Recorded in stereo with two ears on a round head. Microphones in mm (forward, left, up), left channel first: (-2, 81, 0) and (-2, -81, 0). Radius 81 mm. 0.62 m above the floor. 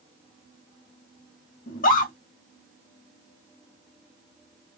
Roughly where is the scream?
Left.